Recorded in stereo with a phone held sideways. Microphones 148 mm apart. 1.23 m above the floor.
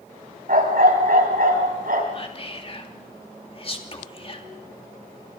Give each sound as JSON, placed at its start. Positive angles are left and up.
{"t": 0.5, "sound": "a dog barking", "side_deg": -70, "distance_m": 3.0}
{"t": 2.1, "sound": "whispering", "side_deg": 40, "distance_m": 2.5}